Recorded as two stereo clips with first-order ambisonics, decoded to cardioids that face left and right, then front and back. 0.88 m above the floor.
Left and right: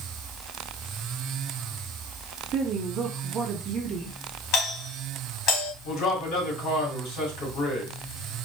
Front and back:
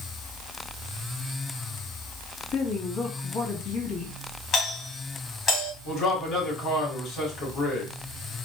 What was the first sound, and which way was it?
A woman speaking, 40° right.